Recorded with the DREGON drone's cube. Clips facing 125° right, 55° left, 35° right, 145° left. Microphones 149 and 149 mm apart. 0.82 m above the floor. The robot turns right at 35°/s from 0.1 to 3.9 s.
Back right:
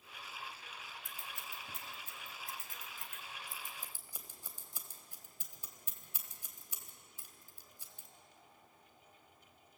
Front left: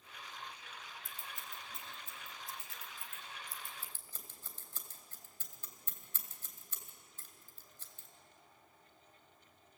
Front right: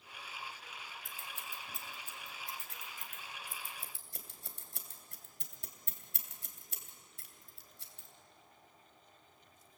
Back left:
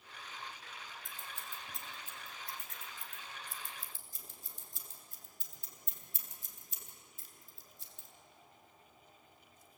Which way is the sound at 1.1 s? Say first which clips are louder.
Even, even; 150° right.